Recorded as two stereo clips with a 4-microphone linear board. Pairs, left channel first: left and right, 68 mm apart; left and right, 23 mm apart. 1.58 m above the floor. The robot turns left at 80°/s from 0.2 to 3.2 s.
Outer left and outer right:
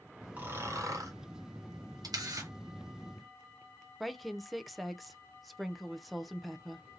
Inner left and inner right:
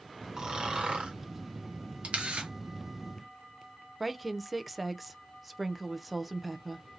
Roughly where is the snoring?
Ahead right.